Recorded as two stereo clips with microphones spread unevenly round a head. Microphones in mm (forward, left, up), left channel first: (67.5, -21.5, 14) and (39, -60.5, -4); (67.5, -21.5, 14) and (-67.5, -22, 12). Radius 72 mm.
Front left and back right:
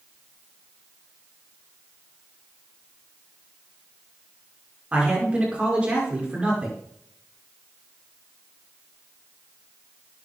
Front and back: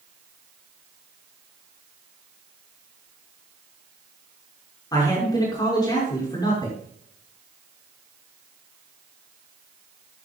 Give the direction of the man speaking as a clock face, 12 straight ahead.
2 o'clock.